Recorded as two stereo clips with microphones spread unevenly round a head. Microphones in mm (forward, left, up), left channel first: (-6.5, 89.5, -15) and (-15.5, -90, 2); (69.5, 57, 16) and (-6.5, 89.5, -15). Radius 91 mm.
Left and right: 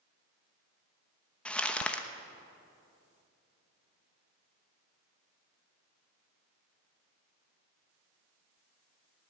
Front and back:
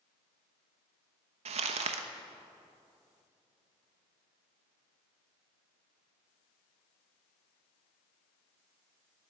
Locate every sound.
1.4 s crumpling: 175° left, 1.0 m